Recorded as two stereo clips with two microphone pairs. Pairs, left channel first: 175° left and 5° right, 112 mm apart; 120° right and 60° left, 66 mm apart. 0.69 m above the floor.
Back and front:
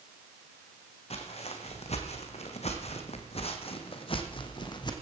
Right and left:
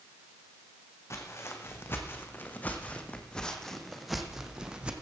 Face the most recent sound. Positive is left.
turn(degrees=130)